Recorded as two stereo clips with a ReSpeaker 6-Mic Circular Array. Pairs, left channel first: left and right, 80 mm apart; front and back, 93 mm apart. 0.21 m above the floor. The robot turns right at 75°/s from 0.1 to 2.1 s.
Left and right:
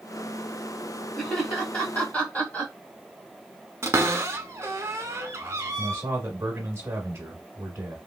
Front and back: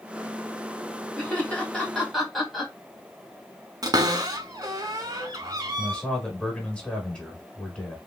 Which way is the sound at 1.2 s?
20° left.